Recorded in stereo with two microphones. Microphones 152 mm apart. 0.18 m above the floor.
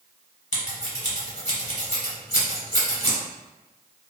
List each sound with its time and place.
0.5 s scissors: 50° left (ahead or behind), 1.1 m